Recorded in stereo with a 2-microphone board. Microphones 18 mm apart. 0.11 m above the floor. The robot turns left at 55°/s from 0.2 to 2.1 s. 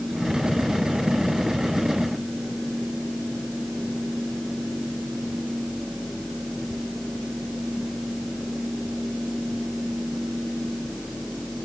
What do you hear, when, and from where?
Only background noise.